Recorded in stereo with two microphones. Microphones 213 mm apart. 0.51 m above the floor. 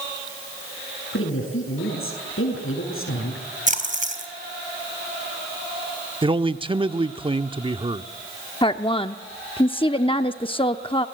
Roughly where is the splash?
Right.